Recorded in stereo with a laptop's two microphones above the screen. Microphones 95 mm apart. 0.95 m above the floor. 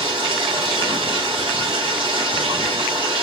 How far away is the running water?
About 3 m.